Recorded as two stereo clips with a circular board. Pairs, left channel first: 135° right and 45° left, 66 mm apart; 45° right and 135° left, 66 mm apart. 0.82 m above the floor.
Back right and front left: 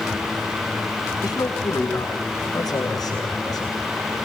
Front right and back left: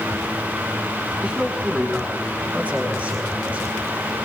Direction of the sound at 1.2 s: 155° right.